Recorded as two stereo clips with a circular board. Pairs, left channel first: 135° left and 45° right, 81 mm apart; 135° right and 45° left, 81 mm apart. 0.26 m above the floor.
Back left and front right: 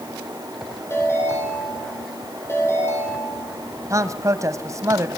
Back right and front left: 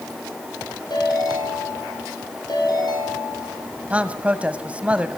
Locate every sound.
0.9 s a ringtone: 165° right, 8 m
3.9 s a man speaking: 20° right, 1.2 m